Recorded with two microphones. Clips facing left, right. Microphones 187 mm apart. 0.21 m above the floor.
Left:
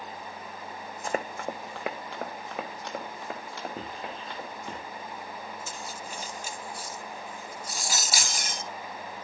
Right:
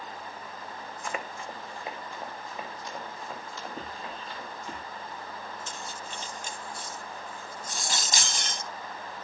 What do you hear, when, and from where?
1.0 s running footsteps: 35° left (ahead or behind), 0.7 m; by 4.8 s 60° left (ahead or behind), 4.5 m
3.8 s writing: 35° left (ahead or behind), 4.5 m
5.7 s cutlery clinking: 10° left (ahead or behind), 0.8 m